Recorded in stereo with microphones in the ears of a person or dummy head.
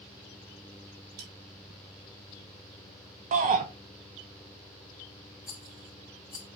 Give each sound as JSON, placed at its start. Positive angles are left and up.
{"t": 1.2, "sound": "cutlery clinking", "side_deg": -85, "distance_m": 5.0}
{"t": 3.3, "sound": "a shout", "side_deg": -35, "distance_m": 0.9}
{"t": 5.5, "sound": "a rattle", "side_deg": -5, "distance_m": 1.3}